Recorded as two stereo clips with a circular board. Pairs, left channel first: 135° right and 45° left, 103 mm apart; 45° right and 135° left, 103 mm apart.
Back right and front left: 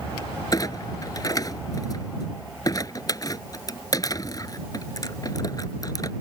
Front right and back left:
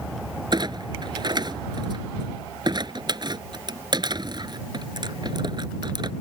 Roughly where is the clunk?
Behind.